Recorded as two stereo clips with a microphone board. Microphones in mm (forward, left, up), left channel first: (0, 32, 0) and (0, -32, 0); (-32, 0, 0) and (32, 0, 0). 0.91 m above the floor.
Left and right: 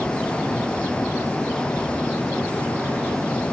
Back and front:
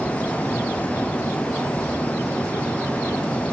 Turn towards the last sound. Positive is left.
No sound to turn to.